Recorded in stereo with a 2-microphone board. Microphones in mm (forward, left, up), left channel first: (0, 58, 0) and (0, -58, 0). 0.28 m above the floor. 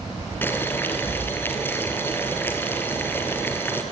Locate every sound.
0.4 s boiling: 20° left (ahead or behind), 2.5 m